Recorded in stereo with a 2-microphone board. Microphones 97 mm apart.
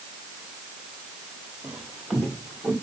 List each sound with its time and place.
1.6 s footsteps: 15° right (ahead or behind), 1.8 m; by 2.7 s 20° left (ahead or behind), 2.5 m